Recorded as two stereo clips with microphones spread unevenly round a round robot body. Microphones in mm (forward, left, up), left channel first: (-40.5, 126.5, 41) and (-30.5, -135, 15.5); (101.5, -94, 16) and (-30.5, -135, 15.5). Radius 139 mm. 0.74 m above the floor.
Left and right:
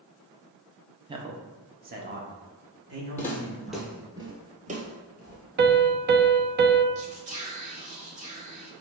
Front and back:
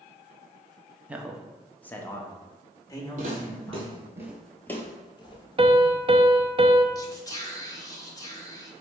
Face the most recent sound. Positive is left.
turn(degrees=-40)